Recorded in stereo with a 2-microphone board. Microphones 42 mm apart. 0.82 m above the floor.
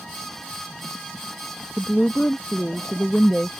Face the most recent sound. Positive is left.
turn(degrees=25)  # may be behind; listen again after turning